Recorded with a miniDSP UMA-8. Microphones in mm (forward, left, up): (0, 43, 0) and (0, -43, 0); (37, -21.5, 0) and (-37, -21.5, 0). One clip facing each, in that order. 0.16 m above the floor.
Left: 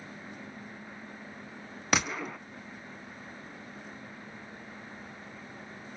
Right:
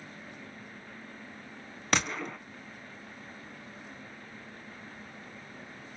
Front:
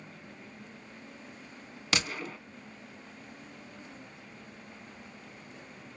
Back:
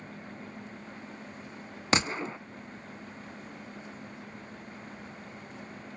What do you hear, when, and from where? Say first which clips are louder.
1.9 s a gunshot: left 1 dB, back 5 dB; 175° left, 0.6 m